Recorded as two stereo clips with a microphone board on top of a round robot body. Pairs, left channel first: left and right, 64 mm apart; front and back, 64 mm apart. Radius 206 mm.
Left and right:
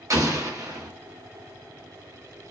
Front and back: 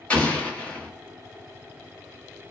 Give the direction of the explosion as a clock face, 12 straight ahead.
2 o'clock.